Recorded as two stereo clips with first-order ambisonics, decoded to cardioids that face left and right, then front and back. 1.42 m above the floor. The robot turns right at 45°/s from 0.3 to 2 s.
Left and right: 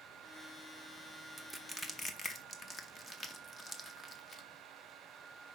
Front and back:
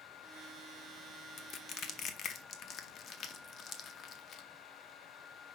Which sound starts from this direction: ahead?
Crushing, at 1.4 s.